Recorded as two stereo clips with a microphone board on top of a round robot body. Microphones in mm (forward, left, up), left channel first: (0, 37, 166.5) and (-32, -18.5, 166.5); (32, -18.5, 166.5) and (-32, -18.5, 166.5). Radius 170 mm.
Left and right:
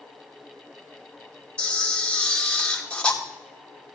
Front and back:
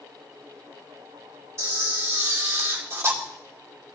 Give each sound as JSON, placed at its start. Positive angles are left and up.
{"t": 1.6, "sound": "a camera shutter", "azimuth_deg": 135, "distance_m": 2.5}